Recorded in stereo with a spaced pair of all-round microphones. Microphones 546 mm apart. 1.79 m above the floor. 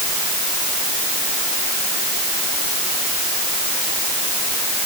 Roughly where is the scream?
No scream in this recording.